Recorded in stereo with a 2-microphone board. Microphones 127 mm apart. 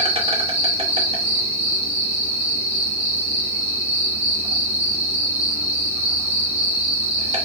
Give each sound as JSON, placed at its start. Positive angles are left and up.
{"t": 0.0, "sound": "an insect", "side_deg": -55, "distance_m": 1.1}